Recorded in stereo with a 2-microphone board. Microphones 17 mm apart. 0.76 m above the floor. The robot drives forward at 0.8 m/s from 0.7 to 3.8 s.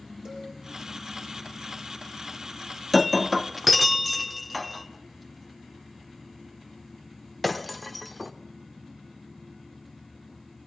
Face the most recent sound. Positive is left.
turn(degrees=0)  # may be behind; listen again after turning